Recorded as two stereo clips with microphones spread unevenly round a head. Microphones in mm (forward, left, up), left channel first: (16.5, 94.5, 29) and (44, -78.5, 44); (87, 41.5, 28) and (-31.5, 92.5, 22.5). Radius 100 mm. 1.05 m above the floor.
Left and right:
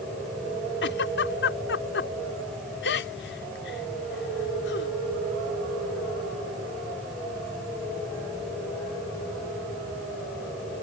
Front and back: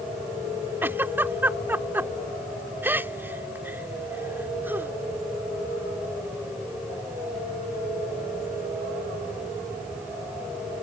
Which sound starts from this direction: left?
A giggle, at 0.8 s.